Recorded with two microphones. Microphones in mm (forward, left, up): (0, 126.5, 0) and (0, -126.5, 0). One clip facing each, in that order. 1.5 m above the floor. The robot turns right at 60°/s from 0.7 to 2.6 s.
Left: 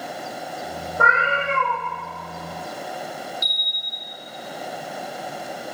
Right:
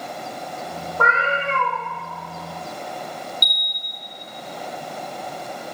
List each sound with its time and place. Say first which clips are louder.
1.0 s a cat meowing: right 1 dB; 15° left (ahead or behind), 0.9 m; by 1.8 s 5° left (ahead or behind), 0.9 m
3.4 s a bell: even; 40° right (ahead or behind), 0.5 m